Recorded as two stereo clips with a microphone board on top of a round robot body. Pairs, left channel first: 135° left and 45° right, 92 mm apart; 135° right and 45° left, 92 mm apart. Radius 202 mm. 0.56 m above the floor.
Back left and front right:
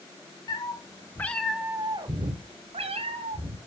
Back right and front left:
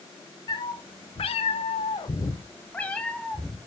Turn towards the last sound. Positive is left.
turn(degrees=-50)